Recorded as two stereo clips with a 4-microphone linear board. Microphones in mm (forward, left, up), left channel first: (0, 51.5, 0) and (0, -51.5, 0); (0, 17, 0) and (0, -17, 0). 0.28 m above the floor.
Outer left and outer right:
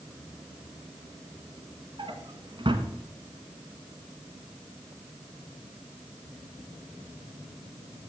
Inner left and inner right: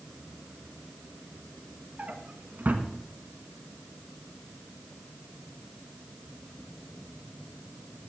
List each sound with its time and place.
2.0 s a drawer: 55° right (ahead or behind), 1.3 m